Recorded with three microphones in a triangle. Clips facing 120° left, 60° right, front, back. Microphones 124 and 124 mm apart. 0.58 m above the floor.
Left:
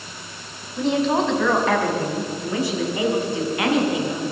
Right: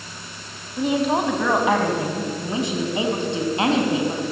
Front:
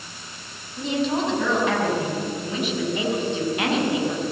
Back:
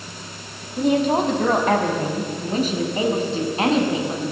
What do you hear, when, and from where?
0.8 s a woman speaking: 145° right, 4.5 m; by 4.2 s 120° right, 6 m